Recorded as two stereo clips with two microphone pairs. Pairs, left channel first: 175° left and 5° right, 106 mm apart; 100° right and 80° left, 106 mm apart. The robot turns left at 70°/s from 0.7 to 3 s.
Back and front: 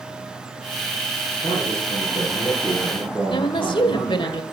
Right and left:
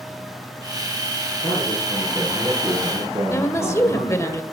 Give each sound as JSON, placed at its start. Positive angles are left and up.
{"t": 1.4, "sound": "a man speaking", "azimuth_deg": -150, "distance_m": 8.5}
{"t": 3.3, "sound": "a woman speaking", "azimuth_deg": -160, "distance_m": 1.7}